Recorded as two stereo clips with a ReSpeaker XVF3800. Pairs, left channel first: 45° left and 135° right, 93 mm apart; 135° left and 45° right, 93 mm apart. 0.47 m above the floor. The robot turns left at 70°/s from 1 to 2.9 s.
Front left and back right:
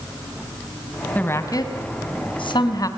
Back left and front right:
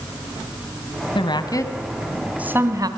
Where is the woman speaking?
120° left, 3 m; by 2.9 s 5° right, 3 m.